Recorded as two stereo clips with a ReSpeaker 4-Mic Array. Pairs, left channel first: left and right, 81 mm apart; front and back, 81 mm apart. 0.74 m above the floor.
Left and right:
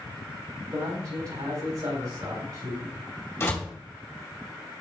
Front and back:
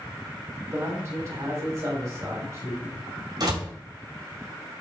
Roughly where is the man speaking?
Behind right.